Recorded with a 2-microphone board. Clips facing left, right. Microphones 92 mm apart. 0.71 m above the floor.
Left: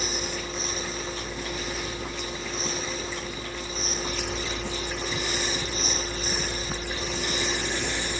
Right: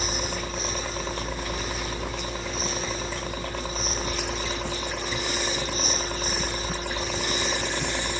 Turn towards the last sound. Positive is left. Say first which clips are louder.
# right 2 dB
turn(degrees=-55)  # may be behind; listen again after turning